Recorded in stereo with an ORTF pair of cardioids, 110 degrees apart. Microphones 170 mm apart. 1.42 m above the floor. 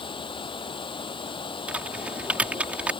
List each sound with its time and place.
0.0 s running water: 30° left
1.7 s typing on a keyboard: 10° right